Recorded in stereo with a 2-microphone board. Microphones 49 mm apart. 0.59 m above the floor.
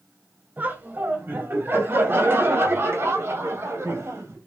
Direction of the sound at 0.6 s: 40° right (ahead or behind).